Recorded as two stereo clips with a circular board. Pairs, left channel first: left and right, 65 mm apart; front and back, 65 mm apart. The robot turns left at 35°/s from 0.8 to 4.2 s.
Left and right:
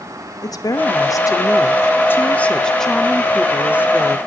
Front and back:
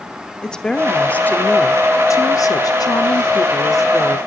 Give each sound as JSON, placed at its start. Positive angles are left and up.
{"t": 0.4, "sound": "a woman speaking", "azimuth_deg": 80, "distance_m": 2.5}